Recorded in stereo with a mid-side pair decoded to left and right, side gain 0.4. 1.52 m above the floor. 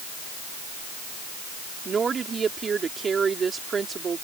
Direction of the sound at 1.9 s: 45° right.